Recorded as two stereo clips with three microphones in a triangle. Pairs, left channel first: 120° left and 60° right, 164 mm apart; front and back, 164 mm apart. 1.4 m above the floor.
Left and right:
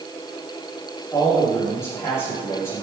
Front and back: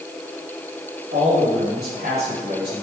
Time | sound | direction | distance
1.1 | a man speaking | 165° right | 3.5 m